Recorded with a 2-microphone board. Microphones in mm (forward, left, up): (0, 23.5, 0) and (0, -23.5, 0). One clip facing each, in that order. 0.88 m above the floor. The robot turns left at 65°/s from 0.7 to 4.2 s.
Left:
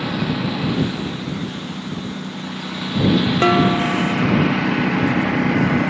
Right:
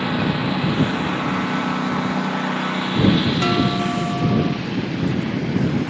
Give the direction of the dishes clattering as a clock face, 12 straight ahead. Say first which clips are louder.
Left 4 dB; 11 o'clock.